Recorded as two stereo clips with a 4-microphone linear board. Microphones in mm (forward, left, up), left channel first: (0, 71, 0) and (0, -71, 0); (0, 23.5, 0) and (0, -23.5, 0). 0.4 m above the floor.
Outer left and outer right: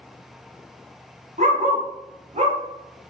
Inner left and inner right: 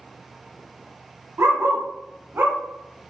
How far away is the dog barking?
About 1.2 m.